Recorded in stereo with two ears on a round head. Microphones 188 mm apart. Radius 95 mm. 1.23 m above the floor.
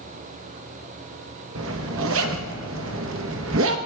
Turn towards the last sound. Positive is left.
turn(degrees=-70)  # may be behind; listen again after turning